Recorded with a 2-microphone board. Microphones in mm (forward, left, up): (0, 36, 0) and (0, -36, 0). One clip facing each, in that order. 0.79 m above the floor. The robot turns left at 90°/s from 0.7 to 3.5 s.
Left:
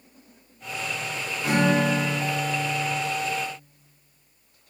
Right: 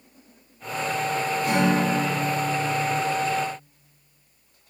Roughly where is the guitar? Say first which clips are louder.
Left 2 dB; left.